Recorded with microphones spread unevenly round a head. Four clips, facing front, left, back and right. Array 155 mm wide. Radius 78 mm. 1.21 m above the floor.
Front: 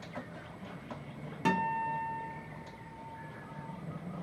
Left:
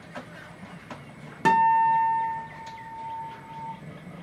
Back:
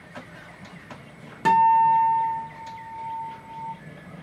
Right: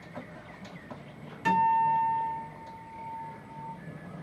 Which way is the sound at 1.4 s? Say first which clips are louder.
Left 5 dB, back 15 dB; 110° left.